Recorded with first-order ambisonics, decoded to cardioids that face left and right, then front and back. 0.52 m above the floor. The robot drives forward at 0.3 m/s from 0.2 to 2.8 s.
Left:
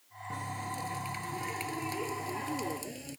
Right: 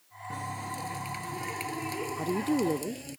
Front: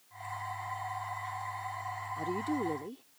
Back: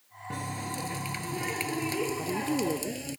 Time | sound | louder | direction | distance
0.3 | a running tap | right 2 dB, back 2 dB | 175° right | ?
2.2 | a woman speaking | right 6 dB, back 3 dB | 100° right | ?